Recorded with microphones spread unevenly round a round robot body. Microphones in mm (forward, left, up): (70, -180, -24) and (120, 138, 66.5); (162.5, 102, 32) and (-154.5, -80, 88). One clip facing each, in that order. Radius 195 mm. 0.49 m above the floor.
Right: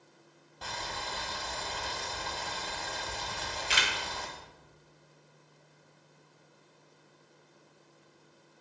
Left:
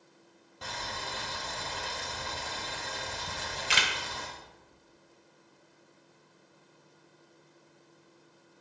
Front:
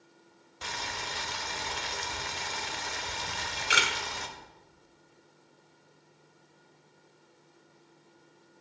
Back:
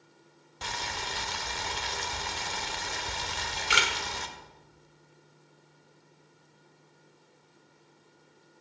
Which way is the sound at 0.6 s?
165° left.